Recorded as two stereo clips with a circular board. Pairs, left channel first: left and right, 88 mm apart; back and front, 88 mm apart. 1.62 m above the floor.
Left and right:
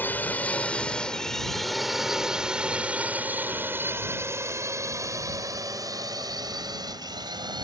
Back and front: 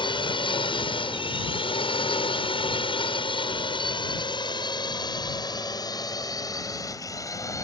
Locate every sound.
0.0 s a drone: 160° left; by 7.6 s 125° right